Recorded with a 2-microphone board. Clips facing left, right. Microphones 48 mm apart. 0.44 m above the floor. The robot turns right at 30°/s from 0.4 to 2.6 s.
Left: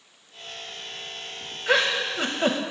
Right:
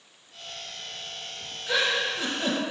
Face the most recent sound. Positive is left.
turn(degrees=65)  # may be behind; listen again after turning